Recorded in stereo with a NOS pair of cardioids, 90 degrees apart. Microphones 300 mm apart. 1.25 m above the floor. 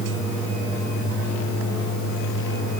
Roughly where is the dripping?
No dripping in this recording.